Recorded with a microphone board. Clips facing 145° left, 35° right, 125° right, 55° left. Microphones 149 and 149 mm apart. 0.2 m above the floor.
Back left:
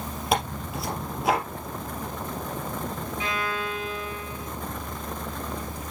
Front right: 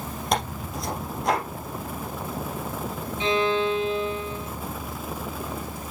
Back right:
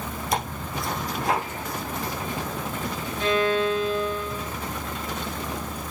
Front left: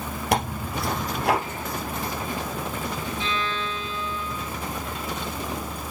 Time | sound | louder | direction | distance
0.3 | tearing paper | back left 1 dB, front left 4 dB | 60° left | 2.5 m
3.2 | a violin | front right 10 dB, back right 12 dB | 95° right | 0.8 m